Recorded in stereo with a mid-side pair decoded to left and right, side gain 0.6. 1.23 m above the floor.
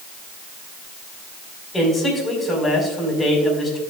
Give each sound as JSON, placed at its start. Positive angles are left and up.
{"t": 1.7, "sound": "a man speaking", "azimuth_deg": 10, "distance_m": 5.0}